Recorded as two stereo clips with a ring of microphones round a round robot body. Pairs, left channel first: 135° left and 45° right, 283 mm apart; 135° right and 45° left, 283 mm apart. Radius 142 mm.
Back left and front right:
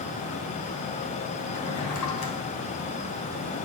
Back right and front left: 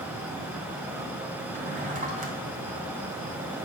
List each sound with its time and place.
1.5 s a drawer: 110° left, 3 m